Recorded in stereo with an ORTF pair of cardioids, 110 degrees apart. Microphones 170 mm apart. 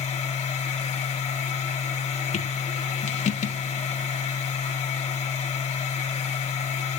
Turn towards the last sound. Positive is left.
turn(degrees=45)